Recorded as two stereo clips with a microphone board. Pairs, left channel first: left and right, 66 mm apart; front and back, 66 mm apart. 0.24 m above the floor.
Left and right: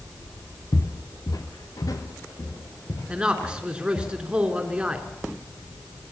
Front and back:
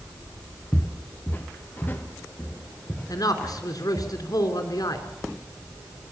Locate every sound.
0.7 s footsteps: 55° left, 1.4 m; by 4.1 s 65° left, 5 m
3.1 s a man speaking: 15° right, 3 m